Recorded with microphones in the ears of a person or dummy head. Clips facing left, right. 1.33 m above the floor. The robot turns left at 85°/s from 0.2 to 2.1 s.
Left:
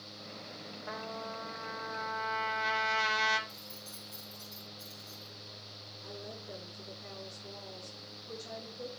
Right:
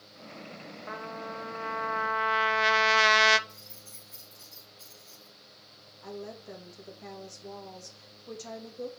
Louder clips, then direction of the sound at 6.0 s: Right 5 dB; 65° right (ahead or behind).